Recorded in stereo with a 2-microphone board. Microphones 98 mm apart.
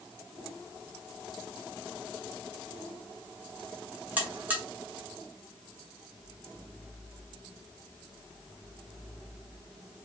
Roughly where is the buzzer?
Centre.